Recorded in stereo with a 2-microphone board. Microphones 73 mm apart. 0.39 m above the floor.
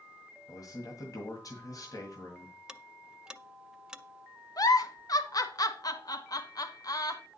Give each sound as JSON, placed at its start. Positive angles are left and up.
{"t": 0.5, "sound": "a man speaking", "side_deg": 55, "distance_m": 2.0}
{"t": 2.7, "sound": "ticking", "side_deg": -10, "distance_m": 0.6}
{"t": 4.6, "sound": "a giggle", "side_deg": 55, "distance_m": 1.0}